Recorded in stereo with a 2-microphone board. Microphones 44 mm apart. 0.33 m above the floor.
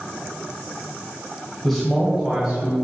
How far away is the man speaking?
About 1.9 m.